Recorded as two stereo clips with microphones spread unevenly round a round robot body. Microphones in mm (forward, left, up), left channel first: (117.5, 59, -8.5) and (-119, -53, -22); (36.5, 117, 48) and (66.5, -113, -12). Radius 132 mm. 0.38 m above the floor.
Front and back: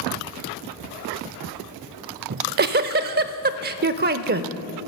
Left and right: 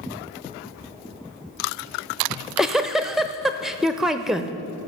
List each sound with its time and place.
2.3 s a giggle: 145° right, 0.5 m